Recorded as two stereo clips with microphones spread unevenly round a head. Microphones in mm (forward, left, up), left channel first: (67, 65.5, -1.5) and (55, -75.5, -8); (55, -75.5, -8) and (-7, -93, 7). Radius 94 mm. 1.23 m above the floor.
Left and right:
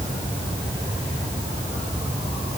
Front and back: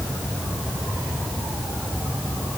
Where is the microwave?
I don't hear a microwave.